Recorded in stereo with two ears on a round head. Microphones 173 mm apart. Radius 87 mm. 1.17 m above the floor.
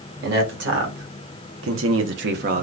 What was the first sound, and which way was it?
A man speaking, 55° right (ahead or behind).